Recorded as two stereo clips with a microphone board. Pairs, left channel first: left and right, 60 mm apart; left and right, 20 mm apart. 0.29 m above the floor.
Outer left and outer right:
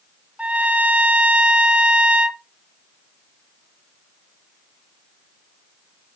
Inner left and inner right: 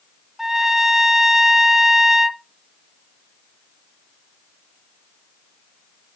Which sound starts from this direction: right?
A trumpet, at 0.4 s.